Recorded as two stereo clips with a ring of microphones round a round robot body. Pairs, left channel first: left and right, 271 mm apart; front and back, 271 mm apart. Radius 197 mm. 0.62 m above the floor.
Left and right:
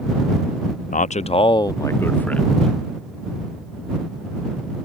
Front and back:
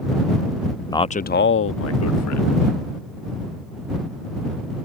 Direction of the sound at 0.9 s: 70° left.